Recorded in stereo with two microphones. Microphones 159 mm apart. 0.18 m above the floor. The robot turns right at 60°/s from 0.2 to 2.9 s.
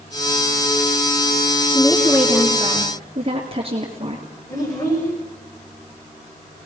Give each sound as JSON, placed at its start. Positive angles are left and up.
{"t": 1.7, "sound": "a woman speaking", "azimuth_deg": 150, "distance_m": 3.5}
{"t": 4.5, "sound": "a child speaking", "side_deg": 25, "distance_m": 8.0}